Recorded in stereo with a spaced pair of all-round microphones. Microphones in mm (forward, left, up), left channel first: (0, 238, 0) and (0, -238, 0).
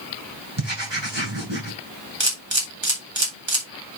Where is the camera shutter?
65° right (ahead or behind), 3 m.